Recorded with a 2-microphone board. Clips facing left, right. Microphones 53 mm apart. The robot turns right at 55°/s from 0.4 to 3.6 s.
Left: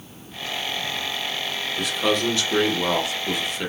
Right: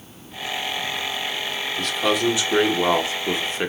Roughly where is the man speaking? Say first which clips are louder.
Right 1 dB; behind.